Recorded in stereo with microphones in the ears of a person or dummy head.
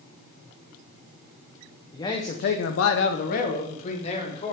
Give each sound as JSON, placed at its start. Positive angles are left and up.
{"t": 1.9, "sound": "a man speaking", "side_deg": 20, "distance_m": 0.8}